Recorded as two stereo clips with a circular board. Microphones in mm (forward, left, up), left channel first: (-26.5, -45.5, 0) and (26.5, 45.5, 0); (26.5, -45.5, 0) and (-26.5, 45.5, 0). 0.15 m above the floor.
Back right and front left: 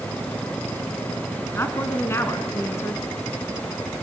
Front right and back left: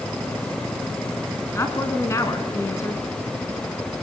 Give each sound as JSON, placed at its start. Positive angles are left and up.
{"t": 1.5, "sound": "a woman speaking", "azimuth_deg": -85, "distance_m": 1.7}